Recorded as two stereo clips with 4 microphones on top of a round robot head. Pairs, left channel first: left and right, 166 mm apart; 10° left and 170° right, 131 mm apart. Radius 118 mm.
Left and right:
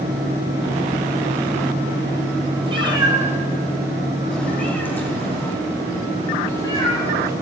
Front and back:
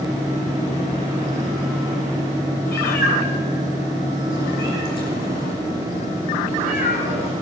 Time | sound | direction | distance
2.7 | a cat meowing | 30° right | 2 m